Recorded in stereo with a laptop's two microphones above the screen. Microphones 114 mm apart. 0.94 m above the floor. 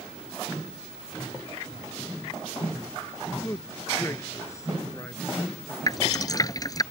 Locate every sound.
3.4 s a man speaking: 25° left (ahead or behind)
5.9 s dripping: 30° left (ahead or behind)